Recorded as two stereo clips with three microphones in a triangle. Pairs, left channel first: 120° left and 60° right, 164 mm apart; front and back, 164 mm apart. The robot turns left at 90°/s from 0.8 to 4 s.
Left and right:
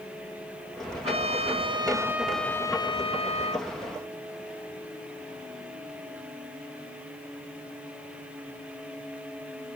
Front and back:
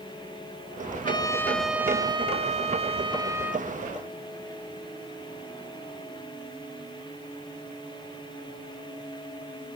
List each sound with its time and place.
1.0 s a trumpet: 35° right, 1.5 m; by 3.7 s 85° left, 1.5 m